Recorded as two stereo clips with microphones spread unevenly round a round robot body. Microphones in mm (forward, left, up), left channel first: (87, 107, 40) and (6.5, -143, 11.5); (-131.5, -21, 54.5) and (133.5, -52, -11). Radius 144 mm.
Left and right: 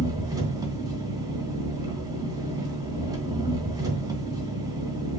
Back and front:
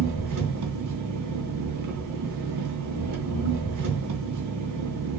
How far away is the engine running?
About 2.5 m.